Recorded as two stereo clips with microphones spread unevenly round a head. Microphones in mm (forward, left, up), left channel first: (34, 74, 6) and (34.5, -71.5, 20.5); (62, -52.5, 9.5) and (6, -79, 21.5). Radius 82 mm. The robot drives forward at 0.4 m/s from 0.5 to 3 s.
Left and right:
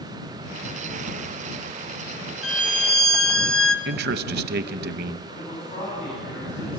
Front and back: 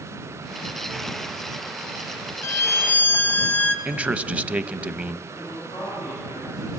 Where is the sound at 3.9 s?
85° right, 0.8 m.